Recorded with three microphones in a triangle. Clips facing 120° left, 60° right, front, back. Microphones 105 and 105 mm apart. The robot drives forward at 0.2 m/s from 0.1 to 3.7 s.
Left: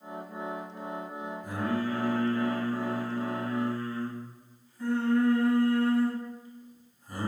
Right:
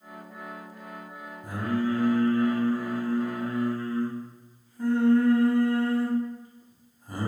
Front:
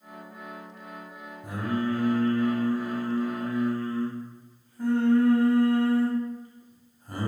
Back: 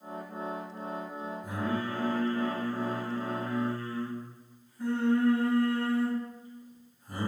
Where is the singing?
20° right, 1.2 m; by 7.3 s 30° right, 0.8 m.